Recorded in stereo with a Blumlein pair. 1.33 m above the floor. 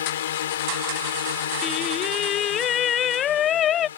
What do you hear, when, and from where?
0.0 s a drone: 60° left
1.6 s singing: 30° left